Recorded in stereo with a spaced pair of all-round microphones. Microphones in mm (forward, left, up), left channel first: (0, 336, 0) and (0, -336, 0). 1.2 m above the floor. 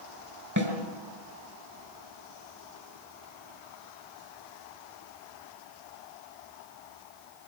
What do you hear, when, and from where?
0.6 s a snare drum: 25° right (ahead or behind), 5 m